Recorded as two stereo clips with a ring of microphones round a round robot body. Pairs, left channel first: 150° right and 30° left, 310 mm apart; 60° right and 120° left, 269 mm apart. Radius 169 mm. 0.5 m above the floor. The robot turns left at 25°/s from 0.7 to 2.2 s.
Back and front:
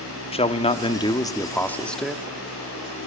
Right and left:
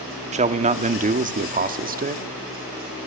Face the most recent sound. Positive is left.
turn(degrees=120)